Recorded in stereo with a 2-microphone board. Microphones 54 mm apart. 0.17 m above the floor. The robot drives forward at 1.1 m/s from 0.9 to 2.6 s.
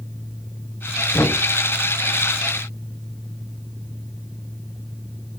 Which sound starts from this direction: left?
Knocking, at 1.1 s.